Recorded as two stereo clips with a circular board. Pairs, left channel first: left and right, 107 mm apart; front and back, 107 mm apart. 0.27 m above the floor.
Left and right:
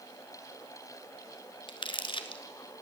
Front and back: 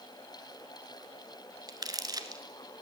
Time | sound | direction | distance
1.7 | crumpling | 130° left | 1.0 m